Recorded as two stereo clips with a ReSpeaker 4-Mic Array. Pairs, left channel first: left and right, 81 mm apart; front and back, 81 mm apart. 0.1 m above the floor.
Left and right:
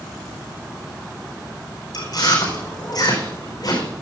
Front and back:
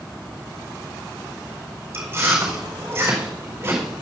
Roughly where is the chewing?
Behind left.